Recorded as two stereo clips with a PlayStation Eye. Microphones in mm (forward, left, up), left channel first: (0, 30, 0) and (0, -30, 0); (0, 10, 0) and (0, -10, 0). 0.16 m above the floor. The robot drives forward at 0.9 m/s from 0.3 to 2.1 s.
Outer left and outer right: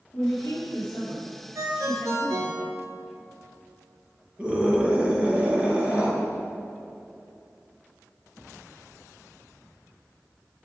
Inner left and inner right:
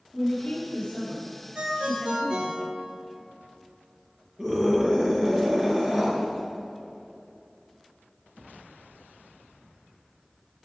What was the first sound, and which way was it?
A woman speaking, 60° left (ahead or behind).